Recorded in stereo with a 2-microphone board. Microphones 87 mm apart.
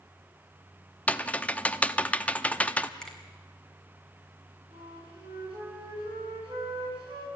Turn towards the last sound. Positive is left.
turn(degrees=-80)